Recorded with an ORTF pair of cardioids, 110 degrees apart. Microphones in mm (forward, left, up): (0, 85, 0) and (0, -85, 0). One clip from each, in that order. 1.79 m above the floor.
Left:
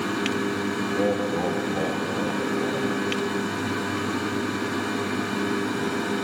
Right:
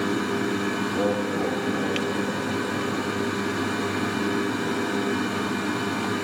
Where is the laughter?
5° right, 1.1 m; by 3.0 s 65° left, 2.5 m.